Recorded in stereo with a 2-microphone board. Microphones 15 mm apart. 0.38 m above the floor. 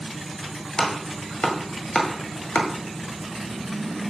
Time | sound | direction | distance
0.8 | chopping | 55° left (ahead or behind) | 1.8 m